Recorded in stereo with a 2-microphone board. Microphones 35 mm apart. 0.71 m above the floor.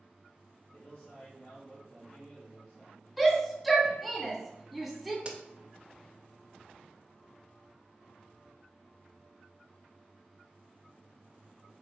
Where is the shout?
Centre (ahead or behind), 0.8 m.